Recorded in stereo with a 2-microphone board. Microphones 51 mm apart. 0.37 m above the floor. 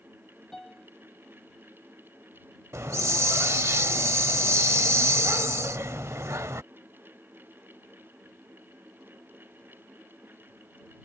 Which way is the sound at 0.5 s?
5° left (ahead or behind).